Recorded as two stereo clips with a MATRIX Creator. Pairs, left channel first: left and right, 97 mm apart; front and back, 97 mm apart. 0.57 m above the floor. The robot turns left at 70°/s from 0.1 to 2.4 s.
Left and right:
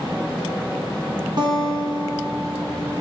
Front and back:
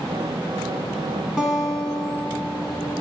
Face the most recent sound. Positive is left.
turn(degrees=-170)